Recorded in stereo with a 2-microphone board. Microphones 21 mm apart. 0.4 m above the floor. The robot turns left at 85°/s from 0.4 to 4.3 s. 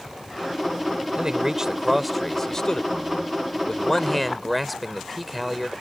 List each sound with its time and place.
1.2 s a man speaking: 95° right; by 5.7 s straight ahead